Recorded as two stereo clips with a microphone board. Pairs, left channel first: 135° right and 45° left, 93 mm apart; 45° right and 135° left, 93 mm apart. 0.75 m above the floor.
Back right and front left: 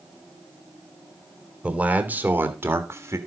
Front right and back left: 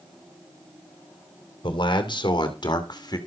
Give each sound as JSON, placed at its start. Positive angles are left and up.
{"t": 1.6, "sound": "a man speaking", "azimuth_deg": -30, "distance_m": 2.5}